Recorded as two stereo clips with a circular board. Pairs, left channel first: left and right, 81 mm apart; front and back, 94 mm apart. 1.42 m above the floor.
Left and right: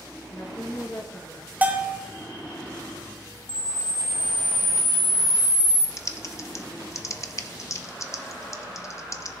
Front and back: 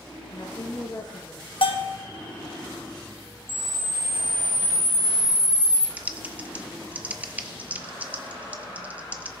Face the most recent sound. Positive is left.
turn(degrees=115)